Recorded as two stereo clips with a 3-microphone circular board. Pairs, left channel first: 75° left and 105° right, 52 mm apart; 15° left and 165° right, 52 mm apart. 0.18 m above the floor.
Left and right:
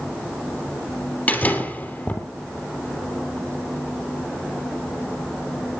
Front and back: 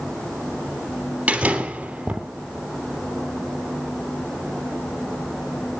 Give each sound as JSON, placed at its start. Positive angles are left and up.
{"t": 1.3, "sound": "a door slam", "azimuth_deg": 130, "distance_m": 3.0}